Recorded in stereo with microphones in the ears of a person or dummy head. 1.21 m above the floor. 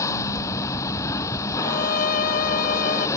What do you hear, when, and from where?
0.0 s a vehicle: 20° left (ahead or behind)
1.6 s a violin: 55° left (ahead or behind)